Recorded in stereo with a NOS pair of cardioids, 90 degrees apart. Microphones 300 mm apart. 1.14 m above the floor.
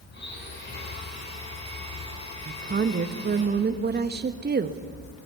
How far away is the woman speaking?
About 1.4 m.